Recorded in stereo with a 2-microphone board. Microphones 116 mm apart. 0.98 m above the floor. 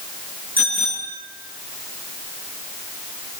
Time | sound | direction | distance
0.6 | a bicycle bell | 15° right (ahead or behind) | 8.5 m